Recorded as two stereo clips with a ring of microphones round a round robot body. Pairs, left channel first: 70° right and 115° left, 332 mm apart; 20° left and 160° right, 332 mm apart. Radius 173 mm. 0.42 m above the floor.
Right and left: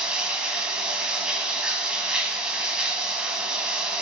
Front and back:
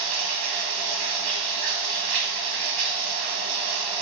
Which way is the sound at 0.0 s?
160° right.